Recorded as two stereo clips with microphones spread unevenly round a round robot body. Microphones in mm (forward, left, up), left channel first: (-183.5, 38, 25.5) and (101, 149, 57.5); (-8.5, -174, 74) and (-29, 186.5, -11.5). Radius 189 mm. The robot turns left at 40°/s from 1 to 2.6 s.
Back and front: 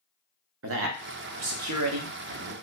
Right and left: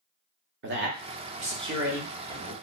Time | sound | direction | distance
0.6 | a man speaking | 60° left | 0.9 m